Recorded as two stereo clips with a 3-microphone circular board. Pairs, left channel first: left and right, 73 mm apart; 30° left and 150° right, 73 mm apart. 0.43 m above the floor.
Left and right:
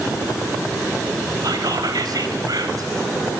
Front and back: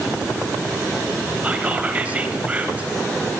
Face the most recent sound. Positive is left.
turn(degrees=-85)